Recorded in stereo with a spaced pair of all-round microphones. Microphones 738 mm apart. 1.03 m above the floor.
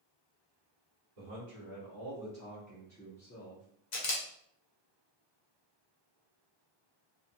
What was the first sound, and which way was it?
A man speaking, 55° right (ahead or behind).